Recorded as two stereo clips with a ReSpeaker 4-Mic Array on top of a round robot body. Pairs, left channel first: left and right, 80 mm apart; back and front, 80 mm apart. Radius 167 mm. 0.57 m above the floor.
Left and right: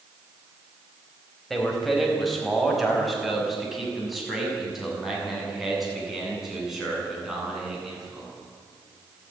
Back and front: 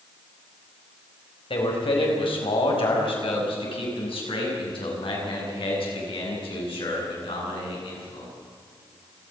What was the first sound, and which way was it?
A man speaking, 175° left.